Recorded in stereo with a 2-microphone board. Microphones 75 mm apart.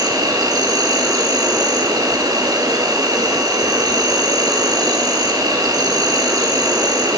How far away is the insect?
About 1.6 m.